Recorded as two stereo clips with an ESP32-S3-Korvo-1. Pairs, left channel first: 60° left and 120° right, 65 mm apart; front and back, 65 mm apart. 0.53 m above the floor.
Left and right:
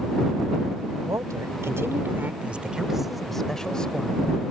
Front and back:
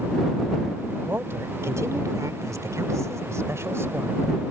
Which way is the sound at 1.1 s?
135° right.